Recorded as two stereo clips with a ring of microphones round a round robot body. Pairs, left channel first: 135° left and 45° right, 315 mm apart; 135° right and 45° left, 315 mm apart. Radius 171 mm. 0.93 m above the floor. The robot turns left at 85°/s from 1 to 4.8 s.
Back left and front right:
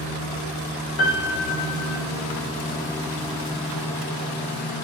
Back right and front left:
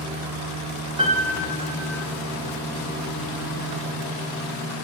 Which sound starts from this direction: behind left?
A piano, at 1.0 s.